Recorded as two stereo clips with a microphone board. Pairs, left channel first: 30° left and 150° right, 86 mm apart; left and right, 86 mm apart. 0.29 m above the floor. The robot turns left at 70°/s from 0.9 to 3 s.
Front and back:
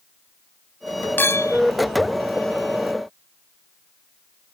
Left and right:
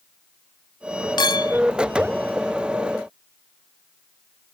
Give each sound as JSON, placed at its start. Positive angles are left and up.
{"t": 1.2, "sound": "a clink", "azimuth_deg": 95}